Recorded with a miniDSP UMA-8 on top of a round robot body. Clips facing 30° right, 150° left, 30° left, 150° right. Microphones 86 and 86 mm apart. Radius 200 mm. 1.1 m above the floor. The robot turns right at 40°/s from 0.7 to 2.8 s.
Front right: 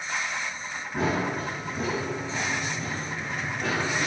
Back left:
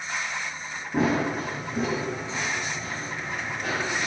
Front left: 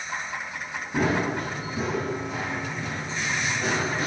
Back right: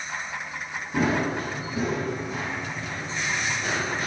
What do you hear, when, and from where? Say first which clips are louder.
0.9 s running footsteps: back left 3 dB, even; 125° left, 1.3 m; by 4.1 s 5° left, 1.4 m